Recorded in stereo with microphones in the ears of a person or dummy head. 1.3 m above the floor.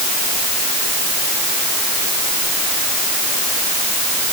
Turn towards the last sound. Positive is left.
No sound to turn to.